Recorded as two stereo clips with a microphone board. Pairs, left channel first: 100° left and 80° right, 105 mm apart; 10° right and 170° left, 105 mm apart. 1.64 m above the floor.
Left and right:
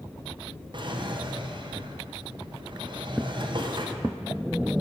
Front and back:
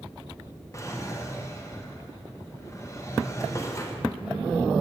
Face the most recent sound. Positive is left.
turn(degrees=-60)